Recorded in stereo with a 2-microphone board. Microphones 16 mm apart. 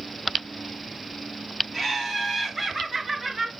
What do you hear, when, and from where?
1.7 s laughter: 10° right (ahead or behind), 2 m; by 3.5 s 20° right (ahead or behind), 1.0 m